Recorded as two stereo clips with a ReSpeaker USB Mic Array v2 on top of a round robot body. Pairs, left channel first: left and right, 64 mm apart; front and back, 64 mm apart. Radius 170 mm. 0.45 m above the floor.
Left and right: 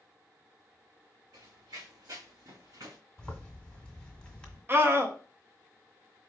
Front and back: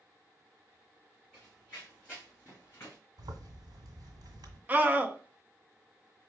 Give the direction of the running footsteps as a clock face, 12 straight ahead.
3 o'clock.